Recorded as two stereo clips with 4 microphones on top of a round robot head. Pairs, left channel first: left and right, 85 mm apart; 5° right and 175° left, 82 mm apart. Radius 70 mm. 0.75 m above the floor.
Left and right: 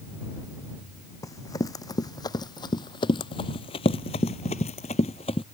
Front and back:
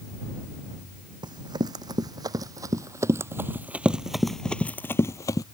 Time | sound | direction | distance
1.2 | running footsteps | 140° left | ?